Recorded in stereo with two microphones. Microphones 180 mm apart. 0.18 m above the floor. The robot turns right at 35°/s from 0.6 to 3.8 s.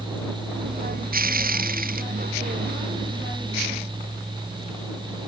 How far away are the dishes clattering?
No dishes clattering in this recording.